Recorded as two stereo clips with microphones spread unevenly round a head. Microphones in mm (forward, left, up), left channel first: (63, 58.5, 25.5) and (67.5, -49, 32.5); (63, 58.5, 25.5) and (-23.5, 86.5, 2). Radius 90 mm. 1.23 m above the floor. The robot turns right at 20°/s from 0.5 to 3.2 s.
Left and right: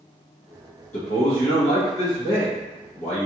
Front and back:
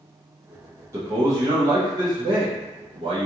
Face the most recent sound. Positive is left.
turn(degrees=145)